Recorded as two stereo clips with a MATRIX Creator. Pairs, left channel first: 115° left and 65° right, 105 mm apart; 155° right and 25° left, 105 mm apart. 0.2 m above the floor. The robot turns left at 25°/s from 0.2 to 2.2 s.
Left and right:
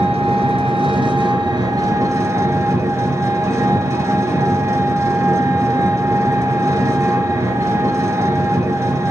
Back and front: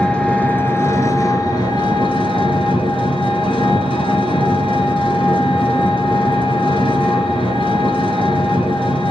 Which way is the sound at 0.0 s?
75° right.